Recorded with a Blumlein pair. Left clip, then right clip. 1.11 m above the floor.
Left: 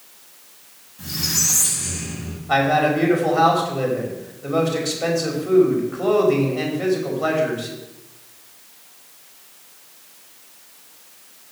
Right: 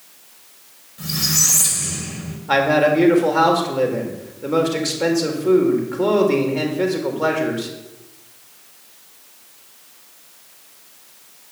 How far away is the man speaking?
About 4 m.